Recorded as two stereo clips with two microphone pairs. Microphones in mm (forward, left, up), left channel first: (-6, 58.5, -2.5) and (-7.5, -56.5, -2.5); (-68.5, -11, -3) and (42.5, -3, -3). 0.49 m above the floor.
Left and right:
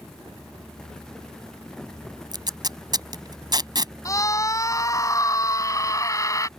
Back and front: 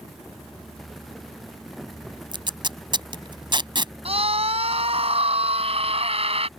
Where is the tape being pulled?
40° right.